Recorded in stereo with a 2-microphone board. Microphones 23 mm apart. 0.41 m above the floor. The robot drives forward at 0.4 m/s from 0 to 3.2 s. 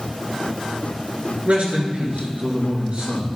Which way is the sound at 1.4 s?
65° right (ahead or behind).